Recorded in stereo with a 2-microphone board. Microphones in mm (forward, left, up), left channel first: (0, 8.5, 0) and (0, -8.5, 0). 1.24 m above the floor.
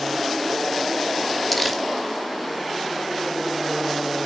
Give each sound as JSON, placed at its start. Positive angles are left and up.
{"t": 1.5, "sound": "crumpling", "side_deg": 10, "distance_m": 1.1}